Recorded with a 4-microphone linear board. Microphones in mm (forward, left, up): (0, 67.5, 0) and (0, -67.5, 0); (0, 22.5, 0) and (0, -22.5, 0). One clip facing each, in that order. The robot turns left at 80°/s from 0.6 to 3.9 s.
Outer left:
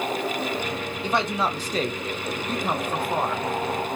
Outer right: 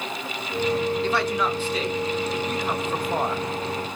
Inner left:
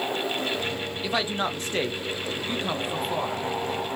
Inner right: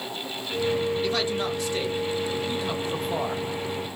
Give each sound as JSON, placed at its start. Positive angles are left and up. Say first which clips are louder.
{"t": 1.0, "sound": "a man speaking", "louder": "outer right 1 dB, inner right 1 dB", "azimuth_deg": 165, "distance_m": 0.6}